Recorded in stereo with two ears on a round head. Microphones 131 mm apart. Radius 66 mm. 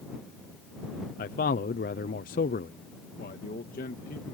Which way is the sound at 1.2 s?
60° left (ahead or behind).